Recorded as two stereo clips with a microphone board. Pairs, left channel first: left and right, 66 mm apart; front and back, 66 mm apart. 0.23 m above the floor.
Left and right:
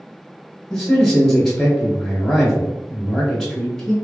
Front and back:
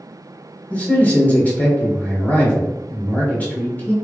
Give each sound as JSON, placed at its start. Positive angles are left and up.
{"t": 0.7, "sound": "a man speaking", "azimuth_deg": 10, "distance_m": 1.3}